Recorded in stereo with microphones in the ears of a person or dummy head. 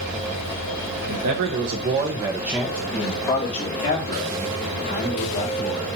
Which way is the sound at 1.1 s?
75° right (ahead or behind).